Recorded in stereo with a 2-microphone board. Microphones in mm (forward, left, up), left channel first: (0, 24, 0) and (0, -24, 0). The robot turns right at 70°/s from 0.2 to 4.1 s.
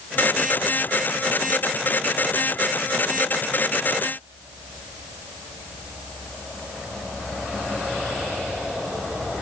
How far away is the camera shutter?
I don't hear a camera shutter.